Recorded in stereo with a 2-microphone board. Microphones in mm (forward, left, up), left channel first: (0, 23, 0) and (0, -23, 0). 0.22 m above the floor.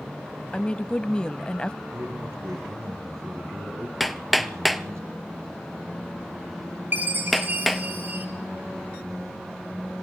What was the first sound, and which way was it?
A woman speaking, 20° left (ahead or behind).